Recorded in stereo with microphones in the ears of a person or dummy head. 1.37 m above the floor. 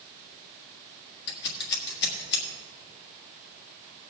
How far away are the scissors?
About 1.6 m.